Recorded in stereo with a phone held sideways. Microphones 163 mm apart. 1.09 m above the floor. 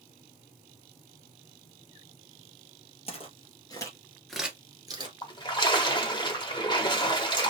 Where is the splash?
25° left (ahead or behind), 1.1 m.